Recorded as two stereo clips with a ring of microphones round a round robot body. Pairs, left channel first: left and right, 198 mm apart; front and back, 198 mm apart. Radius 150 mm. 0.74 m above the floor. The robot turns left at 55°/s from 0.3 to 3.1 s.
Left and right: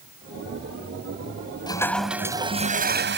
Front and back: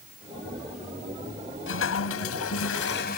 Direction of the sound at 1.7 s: 20° left.